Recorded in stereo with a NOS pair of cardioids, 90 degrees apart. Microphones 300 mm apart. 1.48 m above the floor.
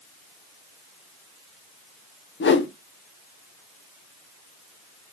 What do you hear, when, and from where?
2.4 s a whoosh: 40° left, 1.3 m